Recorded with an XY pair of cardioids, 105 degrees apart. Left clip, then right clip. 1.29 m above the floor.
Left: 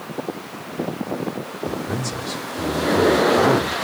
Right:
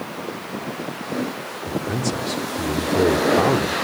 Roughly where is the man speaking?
Ahead.